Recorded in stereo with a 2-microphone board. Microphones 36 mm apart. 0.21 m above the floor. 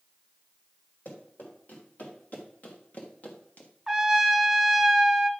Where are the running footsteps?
50° left (ahead or behind), 5.5 m; by 3.7 s 40° left (ahead or behind), 1.9 m.